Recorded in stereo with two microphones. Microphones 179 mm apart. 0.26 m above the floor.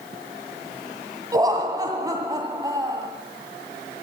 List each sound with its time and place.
1.3 s laughter: 20° right (ahead or behind), 1.9 m